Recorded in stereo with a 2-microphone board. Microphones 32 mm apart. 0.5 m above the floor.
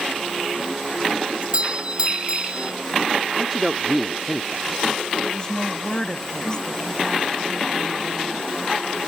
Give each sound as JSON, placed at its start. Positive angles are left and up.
{"t": 1.4, "sound": "a doorbell", "side_deg": -30}
{"t": 3.4, "sound": "a man speaking", "side_deg": -10}
{"t": 5.2, "sound": "a woman speaking", "side_deg": 25}